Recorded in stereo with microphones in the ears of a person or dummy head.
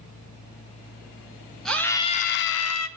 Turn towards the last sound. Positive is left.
turn(degrees=75)  # may be behind; listen again after turning